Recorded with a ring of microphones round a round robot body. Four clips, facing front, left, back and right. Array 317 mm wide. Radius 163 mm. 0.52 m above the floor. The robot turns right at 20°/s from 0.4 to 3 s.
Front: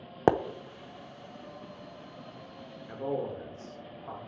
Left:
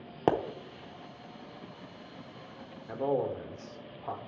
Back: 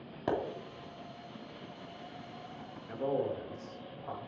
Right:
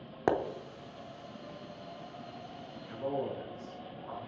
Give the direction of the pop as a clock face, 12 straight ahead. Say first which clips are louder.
Left 2 dB, front 9 dB; 12 o'clock.